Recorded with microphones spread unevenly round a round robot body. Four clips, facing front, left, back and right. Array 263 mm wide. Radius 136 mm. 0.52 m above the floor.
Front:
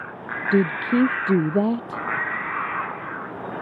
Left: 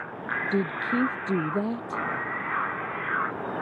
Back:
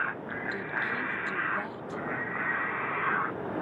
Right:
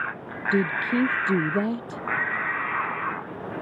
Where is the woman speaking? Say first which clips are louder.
Right 4 dB, front 16 dB; 5° right.